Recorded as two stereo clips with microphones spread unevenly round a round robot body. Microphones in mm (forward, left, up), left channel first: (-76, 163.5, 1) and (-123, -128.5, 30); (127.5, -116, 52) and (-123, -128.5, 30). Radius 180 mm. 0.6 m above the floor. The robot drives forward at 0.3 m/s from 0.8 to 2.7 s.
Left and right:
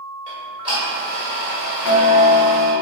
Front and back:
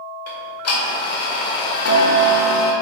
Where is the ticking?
20° right, 1.8 m; by 2.7 s 30° right, 1.3 m.